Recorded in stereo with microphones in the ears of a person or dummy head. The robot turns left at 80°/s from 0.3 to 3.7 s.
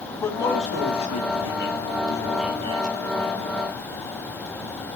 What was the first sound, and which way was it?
A man speaking, 165° left.